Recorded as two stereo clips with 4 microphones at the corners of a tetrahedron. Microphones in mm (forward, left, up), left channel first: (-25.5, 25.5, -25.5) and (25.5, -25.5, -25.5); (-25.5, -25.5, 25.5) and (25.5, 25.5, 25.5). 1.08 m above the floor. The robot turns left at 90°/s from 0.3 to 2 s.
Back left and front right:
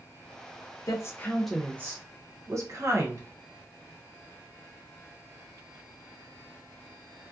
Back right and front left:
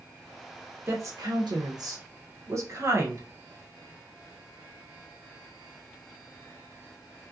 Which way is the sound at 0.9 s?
100° left.